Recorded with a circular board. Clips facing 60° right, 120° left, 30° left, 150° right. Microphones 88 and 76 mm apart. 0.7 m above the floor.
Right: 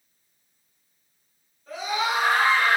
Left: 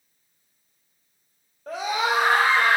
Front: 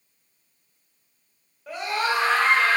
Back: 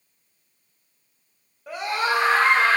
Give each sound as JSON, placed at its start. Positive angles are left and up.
{"t": 1.7, "sound": "a scream", "azimuth_deg": 125, "distance_m": 2.5}